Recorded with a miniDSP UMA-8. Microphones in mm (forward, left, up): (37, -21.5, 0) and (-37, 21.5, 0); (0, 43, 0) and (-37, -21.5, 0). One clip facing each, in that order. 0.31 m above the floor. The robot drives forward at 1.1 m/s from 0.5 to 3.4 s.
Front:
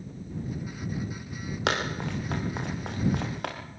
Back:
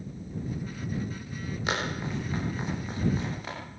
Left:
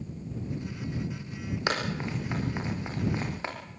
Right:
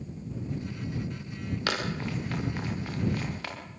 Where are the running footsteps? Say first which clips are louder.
Front 3 dB, left 1 dB; 10° right, 9 m; by 3.6 s 5° right, 7 m.